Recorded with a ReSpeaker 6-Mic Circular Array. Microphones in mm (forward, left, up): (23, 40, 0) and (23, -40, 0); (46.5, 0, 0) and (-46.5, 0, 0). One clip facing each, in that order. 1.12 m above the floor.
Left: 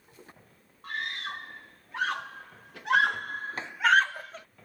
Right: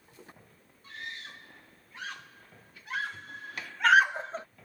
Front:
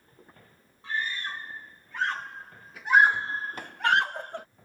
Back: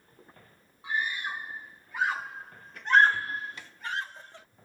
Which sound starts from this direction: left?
A scream, at 0.8 s.